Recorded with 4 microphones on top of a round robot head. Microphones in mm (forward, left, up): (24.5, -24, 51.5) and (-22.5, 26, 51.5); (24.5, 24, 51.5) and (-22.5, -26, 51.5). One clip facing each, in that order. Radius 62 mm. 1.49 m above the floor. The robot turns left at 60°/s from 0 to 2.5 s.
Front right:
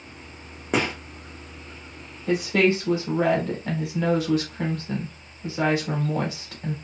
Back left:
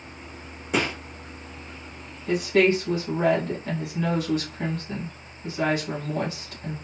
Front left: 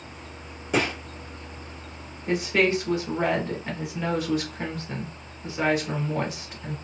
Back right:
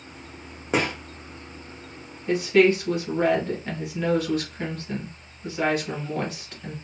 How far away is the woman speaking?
About 1.2 m.